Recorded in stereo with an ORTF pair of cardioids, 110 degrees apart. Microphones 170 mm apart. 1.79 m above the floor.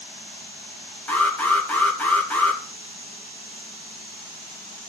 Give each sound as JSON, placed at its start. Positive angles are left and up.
{"t": 1.1, "sound": "an alarm", "azimuth_deg": 10, "distance_m": 3.0}